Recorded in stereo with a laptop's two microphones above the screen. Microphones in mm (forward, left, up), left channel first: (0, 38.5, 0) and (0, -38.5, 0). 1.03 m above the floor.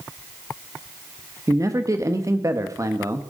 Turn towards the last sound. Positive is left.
turn(degrees=-40)  # may be behind; listen again after turning